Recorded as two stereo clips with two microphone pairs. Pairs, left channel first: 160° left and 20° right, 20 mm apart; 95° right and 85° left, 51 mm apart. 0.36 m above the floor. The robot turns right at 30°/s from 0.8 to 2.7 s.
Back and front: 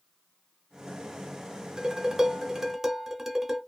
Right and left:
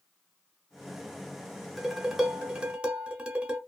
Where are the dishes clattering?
Straight ahead, 0.7 m; by 3.6 s 25° left, 0.7 m.